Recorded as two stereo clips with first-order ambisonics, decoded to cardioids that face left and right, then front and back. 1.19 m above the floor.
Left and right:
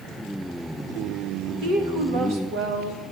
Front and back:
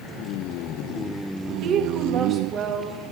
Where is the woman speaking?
135° right, 1.6 m; by 3.1 s 110° right, 3 m.